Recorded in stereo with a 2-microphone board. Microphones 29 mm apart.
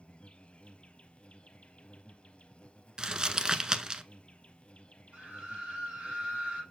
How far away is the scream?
About 6 m.